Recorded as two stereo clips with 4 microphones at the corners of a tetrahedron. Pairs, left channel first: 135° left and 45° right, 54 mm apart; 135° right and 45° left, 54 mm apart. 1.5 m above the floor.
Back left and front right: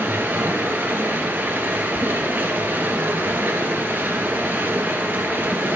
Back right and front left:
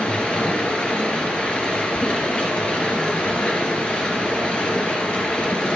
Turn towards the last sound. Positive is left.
turn(degrees=-80)